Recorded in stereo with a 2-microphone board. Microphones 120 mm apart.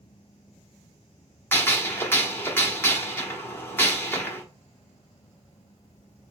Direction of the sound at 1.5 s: 20° left (ahead or behind).